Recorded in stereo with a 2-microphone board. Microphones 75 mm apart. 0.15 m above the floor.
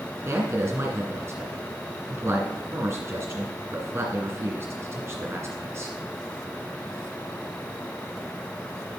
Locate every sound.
0.2 s a man speaking: 35° right (ahead or behind), 2.0 m